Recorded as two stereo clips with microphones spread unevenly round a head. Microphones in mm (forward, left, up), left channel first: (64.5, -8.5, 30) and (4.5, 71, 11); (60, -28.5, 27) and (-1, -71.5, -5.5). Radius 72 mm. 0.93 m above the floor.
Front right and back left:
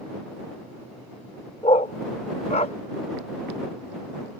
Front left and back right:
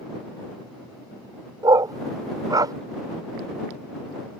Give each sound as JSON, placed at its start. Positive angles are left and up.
{"t": 1.6, "sound": "a dog barking", "azimuth_deg": -95}